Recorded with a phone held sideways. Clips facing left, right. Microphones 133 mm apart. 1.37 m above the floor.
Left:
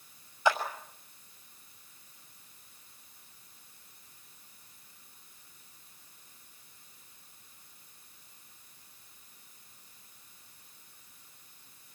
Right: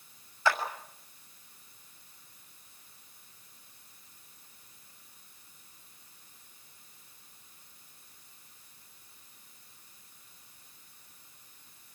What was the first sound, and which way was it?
A clap, 20° left (ahead or behind).